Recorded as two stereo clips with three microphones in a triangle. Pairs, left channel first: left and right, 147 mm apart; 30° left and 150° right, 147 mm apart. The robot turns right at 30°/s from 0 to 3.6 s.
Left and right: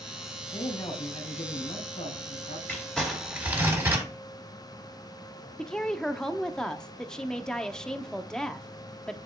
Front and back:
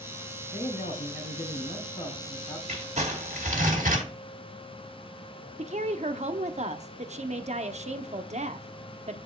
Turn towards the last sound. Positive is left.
turn(degrees=175)